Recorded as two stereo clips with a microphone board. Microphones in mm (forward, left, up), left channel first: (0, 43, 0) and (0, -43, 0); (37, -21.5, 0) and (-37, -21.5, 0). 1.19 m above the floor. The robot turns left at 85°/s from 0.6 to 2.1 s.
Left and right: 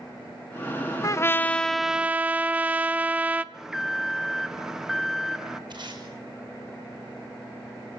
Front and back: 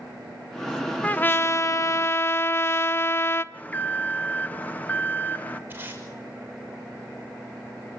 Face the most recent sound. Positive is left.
turn(degrees=-120)